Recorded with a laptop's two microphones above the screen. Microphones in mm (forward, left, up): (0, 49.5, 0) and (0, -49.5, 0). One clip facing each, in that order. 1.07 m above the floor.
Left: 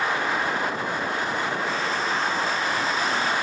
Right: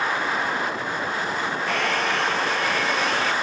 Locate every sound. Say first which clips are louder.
1.7 s a hair dryer: right 2 dB; 65° right (ahead or behind)